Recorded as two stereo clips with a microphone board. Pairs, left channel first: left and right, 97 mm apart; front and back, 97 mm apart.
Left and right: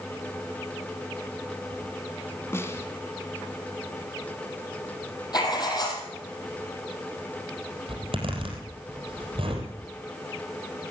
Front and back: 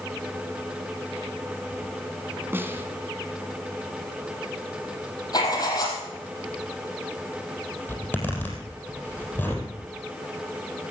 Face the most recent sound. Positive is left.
turn(degrees=-75)